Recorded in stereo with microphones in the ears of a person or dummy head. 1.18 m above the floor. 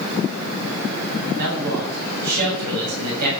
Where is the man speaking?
50° right (ahead or behind), 7.5 m.